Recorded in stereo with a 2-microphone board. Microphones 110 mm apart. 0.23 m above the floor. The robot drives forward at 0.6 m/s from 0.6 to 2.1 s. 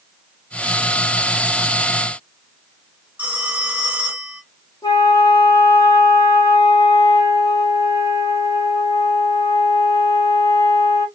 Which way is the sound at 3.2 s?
15° right (ahead or behind).